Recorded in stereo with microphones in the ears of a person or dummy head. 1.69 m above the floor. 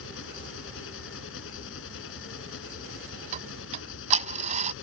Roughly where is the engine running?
Left.